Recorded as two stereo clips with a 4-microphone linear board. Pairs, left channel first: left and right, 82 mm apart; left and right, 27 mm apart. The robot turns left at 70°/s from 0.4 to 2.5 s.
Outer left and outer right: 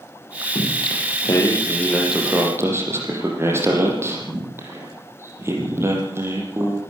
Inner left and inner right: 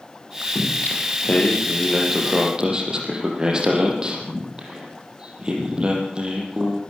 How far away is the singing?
About 6 m.